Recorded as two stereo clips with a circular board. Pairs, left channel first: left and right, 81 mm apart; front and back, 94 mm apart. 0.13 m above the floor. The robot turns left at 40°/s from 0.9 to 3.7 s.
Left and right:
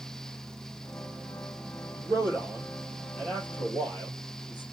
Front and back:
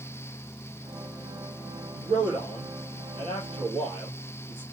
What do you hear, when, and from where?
1.9 s a man speaking: 140° right, 3 m; by 4.6 s 150° left, 3 m